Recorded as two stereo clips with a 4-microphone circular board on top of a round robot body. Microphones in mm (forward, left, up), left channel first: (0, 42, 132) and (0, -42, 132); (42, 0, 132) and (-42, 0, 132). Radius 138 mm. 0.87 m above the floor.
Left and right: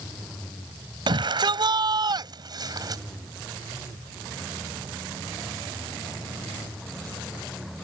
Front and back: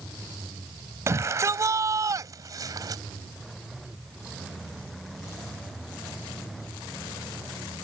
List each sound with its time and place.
1.1 s a shout: 120° right; by 3.0 s 135° right